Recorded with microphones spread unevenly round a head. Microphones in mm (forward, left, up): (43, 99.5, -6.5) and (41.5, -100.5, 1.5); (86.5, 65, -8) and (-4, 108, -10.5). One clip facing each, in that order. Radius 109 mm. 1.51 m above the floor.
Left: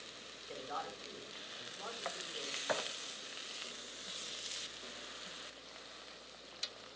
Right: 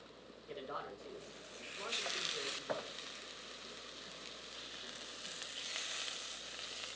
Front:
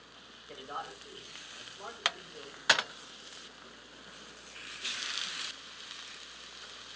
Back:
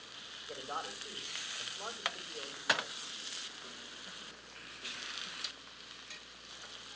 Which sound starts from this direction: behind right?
A man speaking, at 0.5 s.